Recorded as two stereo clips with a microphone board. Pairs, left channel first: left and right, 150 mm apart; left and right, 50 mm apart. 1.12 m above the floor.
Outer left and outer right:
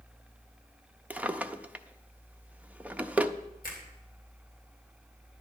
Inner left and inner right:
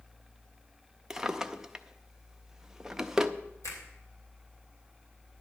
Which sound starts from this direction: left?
A finger snap, at 3.6 s.